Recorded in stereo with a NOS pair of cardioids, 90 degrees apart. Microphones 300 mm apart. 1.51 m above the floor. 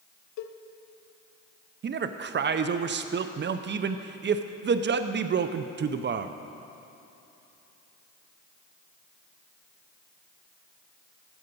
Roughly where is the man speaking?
Ahead right.